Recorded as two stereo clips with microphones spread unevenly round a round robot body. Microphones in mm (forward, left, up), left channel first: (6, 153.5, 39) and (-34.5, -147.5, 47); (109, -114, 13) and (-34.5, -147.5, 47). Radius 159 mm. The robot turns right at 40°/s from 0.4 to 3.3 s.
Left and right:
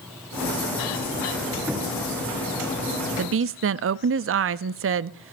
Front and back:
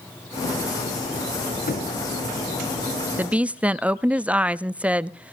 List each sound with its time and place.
1.7 s knocking: 10° right, 5 m; by 1.9 s straight ahead, 5 m
3.2 s a woman speaking: 75° right, 0.6 m